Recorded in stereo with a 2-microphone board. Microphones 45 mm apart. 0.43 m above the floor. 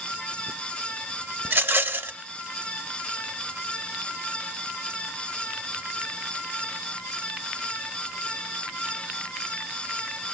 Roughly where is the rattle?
Right.